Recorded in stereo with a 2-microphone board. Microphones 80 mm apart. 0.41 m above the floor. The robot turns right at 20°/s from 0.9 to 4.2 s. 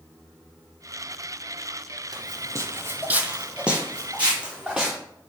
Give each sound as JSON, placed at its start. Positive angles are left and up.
{"t": 2.1, "sound": "footsteps", "side_deg": -55, "distance_m": 0.6}